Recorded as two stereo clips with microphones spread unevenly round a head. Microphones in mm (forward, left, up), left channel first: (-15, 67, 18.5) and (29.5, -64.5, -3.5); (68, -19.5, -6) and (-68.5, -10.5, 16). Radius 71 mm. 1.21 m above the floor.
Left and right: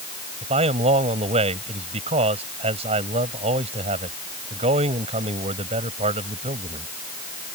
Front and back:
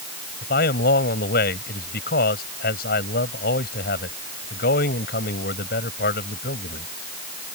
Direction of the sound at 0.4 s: 20° right.